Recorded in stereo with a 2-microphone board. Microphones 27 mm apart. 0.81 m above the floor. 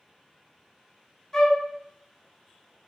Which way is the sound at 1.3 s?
20° left (ahead or behind).